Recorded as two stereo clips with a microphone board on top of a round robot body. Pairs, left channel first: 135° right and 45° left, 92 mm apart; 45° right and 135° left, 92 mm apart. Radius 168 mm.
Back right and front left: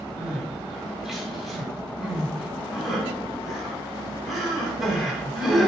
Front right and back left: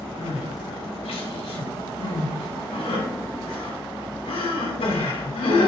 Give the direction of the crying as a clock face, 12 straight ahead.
1 o'clock.